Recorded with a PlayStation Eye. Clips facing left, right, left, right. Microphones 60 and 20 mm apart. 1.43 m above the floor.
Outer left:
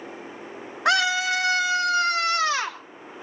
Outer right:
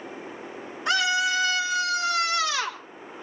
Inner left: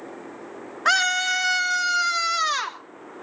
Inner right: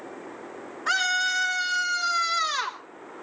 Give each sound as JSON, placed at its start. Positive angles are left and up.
{"t": 0.8, "sound": "a scream", "side_deg": 85, "distance_m": 2.0}